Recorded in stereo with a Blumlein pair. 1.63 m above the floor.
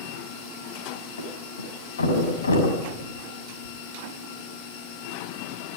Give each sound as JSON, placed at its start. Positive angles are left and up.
{"t": 1.2, "sound": "a thud", "azimuth_deg": 70, "distance_m": 5.5}